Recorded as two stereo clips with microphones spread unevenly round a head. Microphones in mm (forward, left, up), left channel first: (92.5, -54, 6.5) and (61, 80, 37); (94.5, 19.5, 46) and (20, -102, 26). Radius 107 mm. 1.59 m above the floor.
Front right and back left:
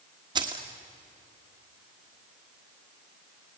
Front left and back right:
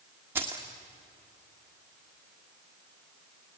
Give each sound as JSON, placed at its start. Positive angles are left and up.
{"t": 0.3, "sound": "keys jangling", "azimuth_deg": 155, "distance_m": 1.3}